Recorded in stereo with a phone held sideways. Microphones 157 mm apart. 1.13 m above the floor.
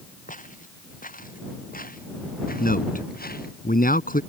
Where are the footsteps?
60° left (ahead or behind); by 3.6 s 75° left (ahead or behind).